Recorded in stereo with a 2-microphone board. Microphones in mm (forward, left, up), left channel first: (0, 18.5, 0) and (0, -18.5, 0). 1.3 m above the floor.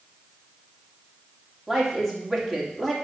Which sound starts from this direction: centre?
A woman speaking, at 1.7 s.